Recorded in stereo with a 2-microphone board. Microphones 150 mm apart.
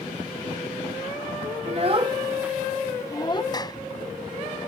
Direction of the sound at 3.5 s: 25° left (ahead or behind).